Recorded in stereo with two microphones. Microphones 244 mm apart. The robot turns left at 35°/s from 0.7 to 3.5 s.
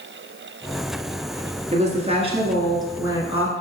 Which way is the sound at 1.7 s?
25° right (ahead or behind).